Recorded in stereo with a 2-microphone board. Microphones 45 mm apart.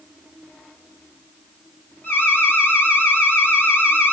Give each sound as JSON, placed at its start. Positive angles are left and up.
{"t": 2.0, "sound": "an alarm", "side_deg": 55, "distance_m": 3.5}